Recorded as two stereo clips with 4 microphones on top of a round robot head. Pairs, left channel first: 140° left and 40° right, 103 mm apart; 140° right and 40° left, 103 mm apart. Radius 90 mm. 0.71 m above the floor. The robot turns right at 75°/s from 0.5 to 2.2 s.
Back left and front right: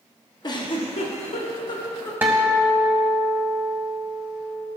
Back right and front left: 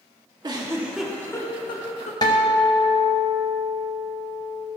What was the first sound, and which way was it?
A giggle, 90° left.